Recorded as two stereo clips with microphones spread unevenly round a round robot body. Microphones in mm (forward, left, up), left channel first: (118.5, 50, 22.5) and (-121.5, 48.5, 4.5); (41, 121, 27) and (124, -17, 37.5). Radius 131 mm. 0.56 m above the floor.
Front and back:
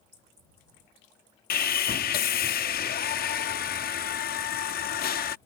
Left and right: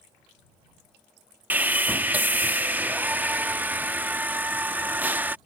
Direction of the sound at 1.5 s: 20° left.